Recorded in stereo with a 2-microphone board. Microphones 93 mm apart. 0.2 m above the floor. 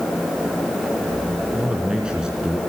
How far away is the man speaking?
About 3 m.